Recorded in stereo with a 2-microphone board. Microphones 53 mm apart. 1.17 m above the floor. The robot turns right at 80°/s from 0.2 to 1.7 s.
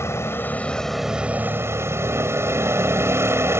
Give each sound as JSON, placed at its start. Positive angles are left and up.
{"t": 0.0, "sound": "a vehicle", "azimuth_deg": 120}